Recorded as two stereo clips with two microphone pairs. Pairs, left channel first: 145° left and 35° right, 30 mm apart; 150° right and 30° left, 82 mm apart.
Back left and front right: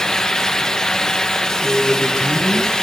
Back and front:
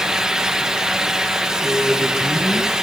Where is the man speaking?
50° right, 9 m.